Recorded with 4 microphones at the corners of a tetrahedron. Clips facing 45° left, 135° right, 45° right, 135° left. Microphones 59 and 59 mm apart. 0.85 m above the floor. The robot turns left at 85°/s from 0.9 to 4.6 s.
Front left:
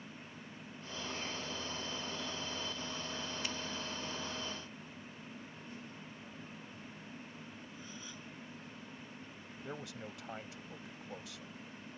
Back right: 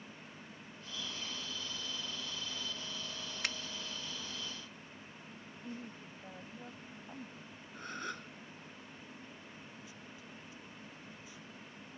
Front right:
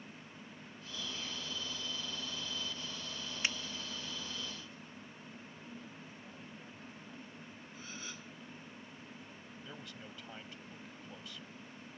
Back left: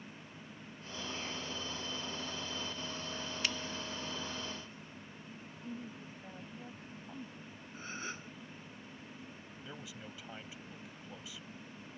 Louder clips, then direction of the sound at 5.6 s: Back right 2 dB, back left 8 dB; 175° right.